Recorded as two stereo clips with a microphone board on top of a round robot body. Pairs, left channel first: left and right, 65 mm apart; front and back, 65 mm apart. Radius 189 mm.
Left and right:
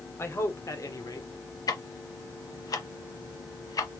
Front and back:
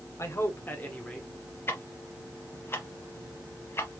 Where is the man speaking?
40° left, 1.8 m; by 1.6 s 85° left, 2 m.